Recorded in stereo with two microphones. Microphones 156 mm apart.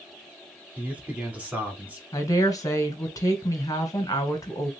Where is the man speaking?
10° right (ahead or behind), 1.4 m.